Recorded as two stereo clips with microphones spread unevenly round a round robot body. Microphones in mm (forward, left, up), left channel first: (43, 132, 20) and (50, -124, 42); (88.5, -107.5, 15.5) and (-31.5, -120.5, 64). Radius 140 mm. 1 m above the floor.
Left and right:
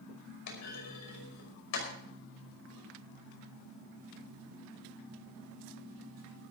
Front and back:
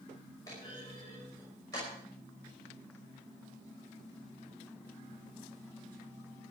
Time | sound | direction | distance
0.5 | a clunk | 75° left | 5.5 m